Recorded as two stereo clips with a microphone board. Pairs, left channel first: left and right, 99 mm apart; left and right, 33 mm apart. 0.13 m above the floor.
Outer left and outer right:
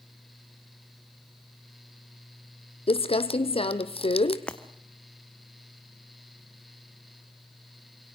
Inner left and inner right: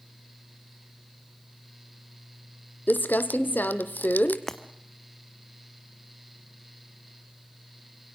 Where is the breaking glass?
10° left (ahead or behind), 2 m.